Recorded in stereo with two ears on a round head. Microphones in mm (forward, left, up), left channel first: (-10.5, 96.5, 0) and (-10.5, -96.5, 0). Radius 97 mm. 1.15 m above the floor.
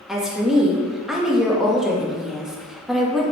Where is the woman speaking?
5° right (ahead or behind), 0.7 m.